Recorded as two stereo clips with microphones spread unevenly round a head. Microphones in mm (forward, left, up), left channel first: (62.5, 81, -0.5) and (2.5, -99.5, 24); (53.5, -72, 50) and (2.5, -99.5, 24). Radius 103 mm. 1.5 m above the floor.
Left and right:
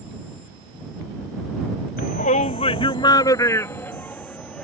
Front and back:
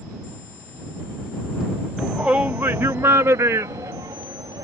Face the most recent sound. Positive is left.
turn(degrees=160)